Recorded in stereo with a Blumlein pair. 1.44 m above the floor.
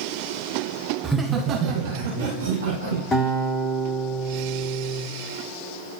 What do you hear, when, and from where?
1.0 s laughter: 5° right, 1.0 m; by 3.0 s 80° right, 1.9 m
3.1 s a guitar: 15° left, 1.9 m